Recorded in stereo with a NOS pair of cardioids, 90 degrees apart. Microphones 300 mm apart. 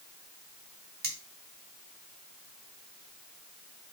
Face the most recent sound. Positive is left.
turn(degrees=-35)